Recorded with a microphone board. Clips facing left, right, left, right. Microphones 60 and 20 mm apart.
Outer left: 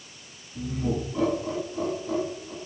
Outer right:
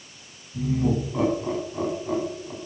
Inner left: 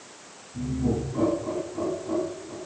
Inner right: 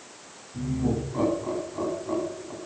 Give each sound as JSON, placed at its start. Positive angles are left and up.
{"t": 0.5, "sound": "laughter", "side_deg": -35, "distance_m": 2.0}